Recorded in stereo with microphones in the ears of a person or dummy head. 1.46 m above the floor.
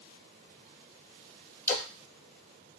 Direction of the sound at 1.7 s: 15° left (ahead or behind).